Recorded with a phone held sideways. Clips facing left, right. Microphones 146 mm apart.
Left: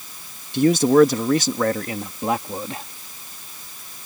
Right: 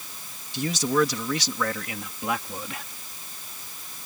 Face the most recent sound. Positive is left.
turn(degrees=35)  # may be behind; listen again after turning